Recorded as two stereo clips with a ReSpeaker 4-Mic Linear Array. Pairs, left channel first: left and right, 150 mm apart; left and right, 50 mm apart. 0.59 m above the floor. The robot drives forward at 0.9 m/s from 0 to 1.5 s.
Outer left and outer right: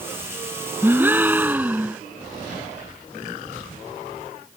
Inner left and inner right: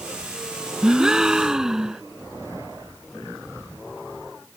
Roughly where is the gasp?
Centre.